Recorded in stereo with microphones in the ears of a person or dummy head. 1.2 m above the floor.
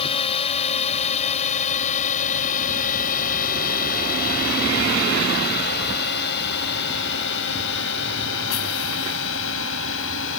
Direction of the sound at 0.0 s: 35° left (ahead or behind).